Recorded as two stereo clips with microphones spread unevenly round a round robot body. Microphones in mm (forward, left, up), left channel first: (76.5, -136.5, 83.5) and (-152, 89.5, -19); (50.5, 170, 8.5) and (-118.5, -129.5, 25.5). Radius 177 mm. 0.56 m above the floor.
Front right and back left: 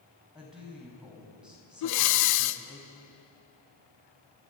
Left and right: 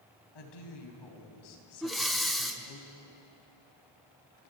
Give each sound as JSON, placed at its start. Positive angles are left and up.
{"t": 0.3, "sound": "a woman speaking", "azimuth_deg": 50, "distance_m": 4.0}
{"t": 1.8, "sound": "breathing", "azimuth_deg": -25, "distance_m": 0.9}